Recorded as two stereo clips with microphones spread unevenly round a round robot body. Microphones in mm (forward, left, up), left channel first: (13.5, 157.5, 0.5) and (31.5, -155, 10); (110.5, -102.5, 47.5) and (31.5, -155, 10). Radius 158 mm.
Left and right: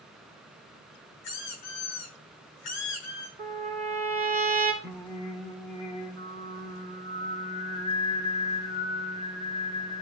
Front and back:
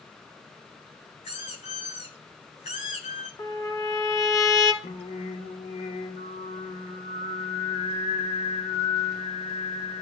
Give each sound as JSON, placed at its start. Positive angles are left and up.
{"t": 1.2, "sound": "a squeak", "azimuth_deg": 75, "distance_m": 8.5}
{"t": 3.4, "sound": "a trumpet", "azimuth_deg": -15, "distance_m": 3.0}
{"t": 4.8, "sound": "singing", "azimuth_deg": 15, "distance_m": 2.5}